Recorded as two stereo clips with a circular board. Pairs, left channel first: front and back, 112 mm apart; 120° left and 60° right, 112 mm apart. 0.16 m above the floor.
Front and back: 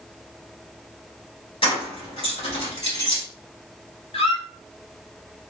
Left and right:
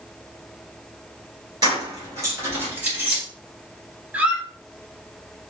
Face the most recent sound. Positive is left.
turn(degrees=15)